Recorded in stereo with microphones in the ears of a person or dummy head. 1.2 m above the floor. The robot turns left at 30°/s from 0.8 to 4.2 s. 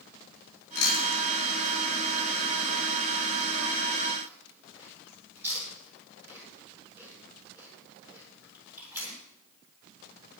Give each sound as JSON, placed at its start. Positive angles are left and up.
{"t": 0.8, "sound": "chewing", "side_deg": 85, "distance_m": 7.0}